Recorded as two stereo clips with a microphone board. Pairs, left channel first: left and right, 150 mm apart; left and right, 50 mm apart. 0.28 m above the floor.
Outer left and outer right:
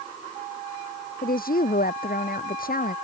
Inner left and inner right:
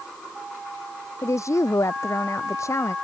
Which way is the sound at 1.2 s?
80° left.